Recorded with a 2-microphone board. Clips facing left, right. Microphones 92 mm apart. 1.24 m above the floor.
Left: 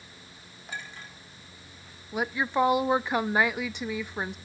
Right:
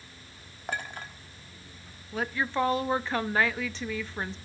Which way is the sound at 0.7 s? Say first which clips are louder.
Right 5 dB; 60° right (ahead or behind).